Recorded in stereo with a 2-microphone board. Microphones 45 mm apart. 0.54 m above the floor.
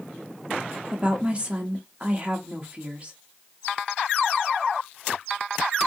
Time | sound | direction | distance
0.9 | a woman speaking | 30° right (ahead or behind) | 0.8 m